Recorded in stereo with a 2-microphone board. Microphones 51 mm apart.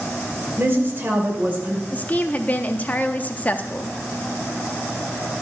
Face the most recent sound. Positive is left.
turn(degrees=30)  # may be behind; listen again after turning